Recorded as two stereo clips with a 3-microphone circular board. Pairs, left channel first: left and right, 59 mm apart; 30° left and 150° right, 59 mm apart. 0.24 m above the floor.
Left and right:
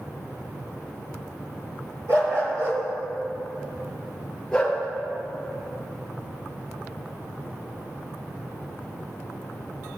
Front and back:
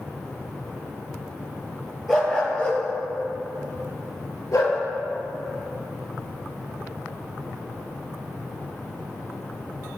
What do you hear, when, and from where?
2.1 s a dog barking: 60° right, 2.5 m; by 4.8 s 15° left, 2.5 m